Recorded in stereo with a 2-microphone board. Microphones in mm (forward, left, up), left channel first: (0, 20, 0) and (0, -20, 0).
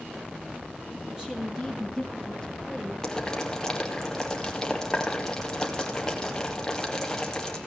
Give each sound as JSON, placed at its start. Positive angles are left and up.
{"t": 1.1, "sound": "a woman speaking", "side_deg": -20, "distance_m": 5.0}
{"t": 3.0, "sound": "boiling", "side_deg": 15, "distance_m": 2.5}